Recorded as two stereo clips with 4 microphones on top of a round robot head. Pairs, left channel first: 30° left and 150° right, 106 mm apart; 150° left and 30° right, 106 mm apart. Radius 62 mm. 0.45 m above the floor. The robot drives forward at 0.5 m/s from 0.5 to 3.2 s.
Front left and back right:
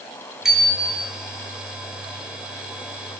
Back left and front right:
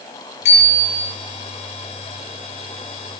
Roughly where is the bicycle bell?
Behind left.